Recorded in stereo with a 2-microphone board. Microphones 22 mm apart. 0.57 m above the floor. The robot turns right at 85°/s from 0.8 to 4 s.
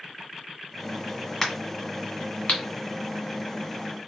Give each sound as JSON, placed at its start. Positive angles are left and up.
{"t": 1.4, "sound": "a crack", "side_deg": 10, "distance_m": 1.5}